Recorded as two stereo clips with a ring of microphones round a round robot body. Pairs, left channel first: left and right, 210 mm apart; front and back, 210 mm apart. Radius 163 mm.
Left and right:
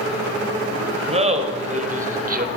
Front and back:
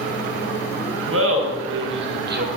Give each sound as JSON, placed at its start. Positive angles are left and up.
{"t": 1.1, "sound": "laughter", "azimuth_deg": -150, "distance_m": 3.0}